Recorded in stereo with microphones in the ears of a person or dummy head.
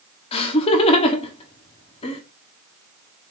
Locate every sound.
0.3 s laughter: 35° left (ahead or behind), 0.9 m